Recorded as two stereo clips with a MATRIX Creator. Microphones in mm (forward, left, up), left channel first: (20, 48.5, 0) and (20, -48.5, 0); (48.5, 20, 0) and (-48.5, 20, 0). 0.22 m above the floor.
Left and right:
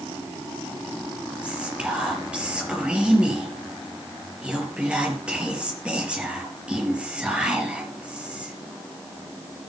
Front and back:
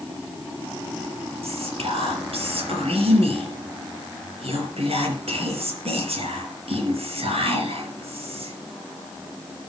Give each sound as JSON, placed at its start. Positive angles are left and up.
{"t": 1.4, "sound": "whispering", "azimuth_deg": -170, "distance_m": 4.5}